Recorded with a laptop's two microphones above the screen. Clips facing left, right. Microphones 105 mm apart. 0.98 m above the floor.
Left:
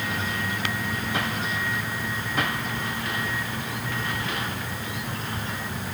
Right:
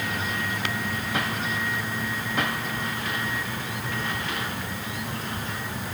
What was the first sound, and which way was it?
Only background noise.